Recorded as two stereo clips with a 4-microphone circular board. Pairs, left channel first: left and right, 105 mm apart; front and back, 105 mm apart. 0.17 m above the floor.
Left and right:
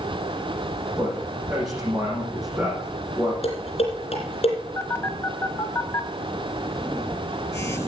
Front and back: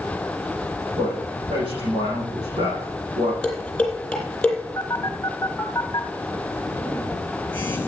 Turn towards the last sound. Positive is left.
turn(degrees=50)